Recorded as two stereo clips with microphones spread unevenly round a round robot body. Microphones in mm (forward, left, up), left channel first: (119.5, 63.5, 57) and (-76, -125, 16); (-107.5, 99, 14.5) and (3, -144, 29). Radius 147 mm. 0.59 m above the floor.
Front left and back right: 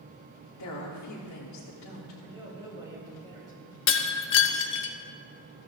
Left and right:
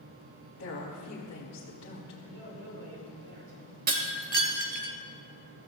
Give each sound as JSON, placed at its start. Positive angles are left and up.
{"t": 0.6, "sound": "a woman speaking", "azimuth_deg": 70, "distance_m": 1.8}
{"t": 2.2, "sound": "a man speaking", "azimuth_deg": -60, "distance_m": 5.5}
{"t": 3.9, "sound": "breaking glass", "azimuth_deg": -5, "distance_m": 1.0}